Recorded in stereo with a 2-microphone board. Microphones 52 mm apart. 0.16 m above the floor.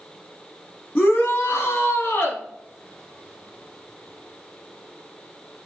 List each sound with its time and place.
0.9 s a shout: 25° left (ahead or behind), 1.2 m; by 2.4 s 30° left (ahead or behind), 1.5 m